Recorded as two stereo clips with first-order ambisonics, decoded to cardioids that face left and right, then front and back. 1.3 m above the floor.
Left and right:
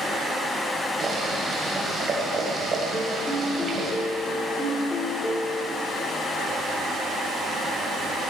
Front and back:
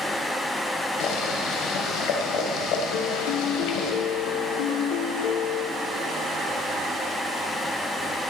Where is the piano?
10° left, 1.9 m.